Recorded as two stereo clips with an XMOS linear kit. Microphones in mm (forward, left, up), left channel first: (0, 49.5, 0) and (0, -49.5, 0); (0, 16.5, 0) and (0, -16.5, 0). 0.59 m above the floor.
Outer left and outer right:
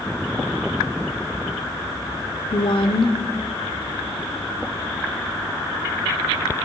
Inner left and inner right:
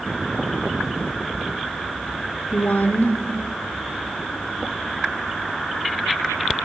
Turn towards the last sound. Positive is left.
turn(degrees=65)  # may be behind; listen again after turning